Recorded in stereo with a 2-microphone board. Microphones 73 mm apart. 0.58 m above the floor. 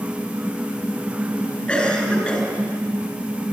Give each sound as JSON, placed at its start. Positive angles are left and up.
{"t": 1.7, "sound": "a cough", "side_deg": 10, "distance_m": 6.0}